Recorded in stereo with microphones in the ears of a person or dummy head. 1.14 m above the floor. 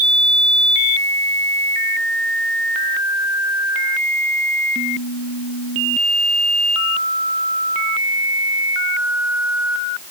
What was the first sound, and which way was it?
Only background noise.